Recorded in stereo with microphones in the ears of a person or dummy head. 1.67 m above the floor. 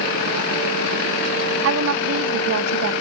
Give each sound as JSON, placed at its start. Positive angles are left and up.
{"t": 1.6, "sound": "a woman speaking", "side_deg": -75}